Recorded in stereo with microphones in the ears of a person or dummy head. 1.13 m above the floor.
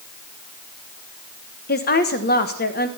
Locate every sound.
1.7 s a woman speaking: 40° left (ahead or behind), 1.2 m